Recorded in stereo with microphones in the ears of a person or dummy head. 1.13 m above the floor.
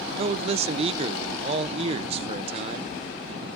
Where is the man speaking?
40° right (ahead or behind), 0.7 m.